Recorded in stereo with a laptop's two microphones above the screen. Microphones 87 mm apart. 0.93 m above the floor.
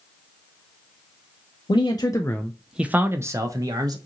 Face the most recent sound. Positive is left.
turn(degrees=-45)  # may be behind; listen again after turning